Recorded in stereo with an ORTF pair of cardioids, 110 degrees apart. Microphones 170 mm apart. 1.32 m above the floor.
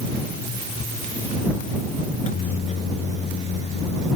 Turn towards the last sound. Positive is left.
turn(degrees=40)